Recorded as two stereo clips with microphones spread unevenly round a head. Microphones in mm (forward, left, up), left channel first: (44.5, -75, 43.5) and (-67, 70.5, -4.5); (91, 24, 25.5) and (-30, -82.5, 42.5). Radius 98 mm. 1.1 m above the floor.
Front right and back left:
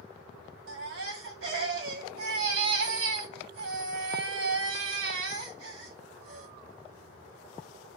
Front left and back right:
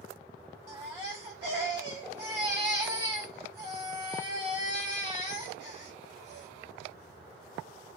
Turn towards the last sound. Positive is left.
turn(degrees=140)